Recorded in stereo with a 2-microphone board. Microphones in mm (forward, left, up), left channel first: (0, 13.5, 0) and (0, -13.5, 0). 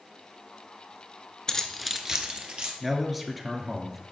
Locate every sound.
1.5 s keys jangling: 25° left (ahead or behind), 0.8 m; by 2.7 s 50° right (ahead or behind), 1.4 m
2.8 s a man speaking: 10° right (ahead or behind), 1.3 m